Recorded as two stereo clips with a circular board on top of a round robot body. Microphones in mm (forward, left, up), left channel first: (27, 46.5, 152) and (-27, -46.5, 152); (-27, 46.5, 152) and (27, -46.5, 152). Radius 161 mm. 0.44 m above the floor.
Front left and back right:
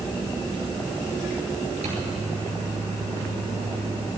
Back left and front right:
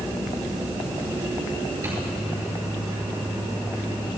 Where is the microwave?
125° right, 8 m.